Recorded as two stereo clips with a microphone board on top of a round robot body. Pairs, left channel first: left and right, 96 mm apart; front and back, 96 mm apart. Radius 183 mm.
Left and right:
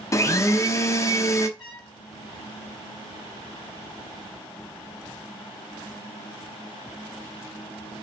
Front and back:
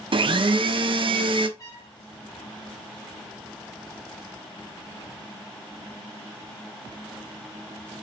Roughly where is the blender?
Behind left.